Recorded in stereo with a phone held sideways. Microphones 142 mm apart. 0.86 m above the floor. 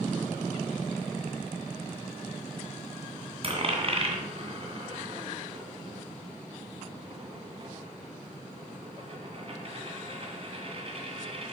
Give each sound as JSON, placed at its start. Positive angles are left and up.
{"t": 3.4, "sound": "a dropped coin", "side_deg": -40, "distance_m": 2.0}